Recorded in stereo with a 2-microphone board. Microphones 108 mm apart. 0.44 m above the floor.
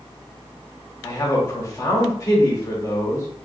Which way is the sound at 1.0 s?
30° left (ahead or behind).